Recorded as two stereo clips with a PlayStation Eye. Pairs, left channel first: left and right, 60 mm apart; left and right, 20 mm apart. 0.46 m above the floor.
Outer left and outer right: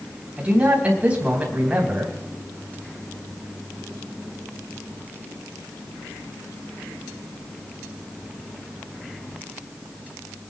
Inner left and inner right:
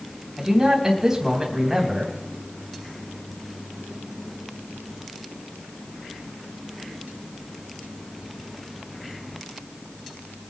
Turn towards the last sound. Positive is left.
turn(degrees=-25)  # may be behind; listen again after turning